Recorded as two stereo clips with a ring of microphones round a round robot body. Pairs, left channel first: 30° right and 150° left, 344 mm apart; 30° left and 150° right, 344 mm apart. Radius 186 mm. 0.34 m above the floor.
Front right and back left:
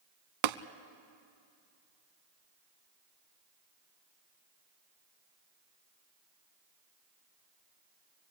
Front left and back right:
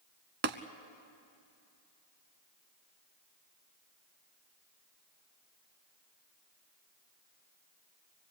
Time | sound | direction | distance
0.4 | tapping | 145° left | 0.7 m